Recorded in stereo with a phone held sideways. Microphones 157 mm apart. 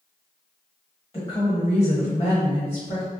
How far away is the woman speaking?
About 0.9 m.